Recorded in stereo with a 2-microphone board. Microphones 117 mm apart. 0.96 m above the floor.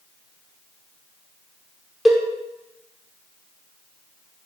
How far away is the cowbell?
About 1.1 m.